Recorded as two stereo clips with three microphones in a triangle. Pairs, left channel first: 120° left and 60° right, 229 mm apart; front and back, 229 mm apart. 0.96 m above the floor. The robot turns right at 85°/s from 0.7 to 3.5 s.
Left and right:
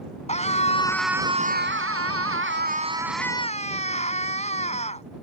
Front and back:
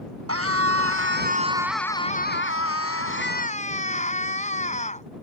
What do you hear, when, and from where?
0.3 s a scream: straight behind; by 5.0 s 60° left